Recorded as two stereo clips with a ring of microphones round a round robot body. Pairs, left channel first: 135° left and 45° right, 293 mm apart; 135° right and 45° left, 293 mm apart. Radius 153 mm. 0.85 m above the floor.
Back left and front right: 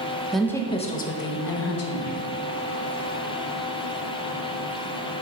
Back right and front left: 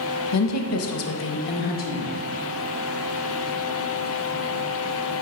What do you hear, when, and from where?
0.3 s a woman speaking: 135° right, 0.9 m; by 2.2 s 160° left, 1.4 m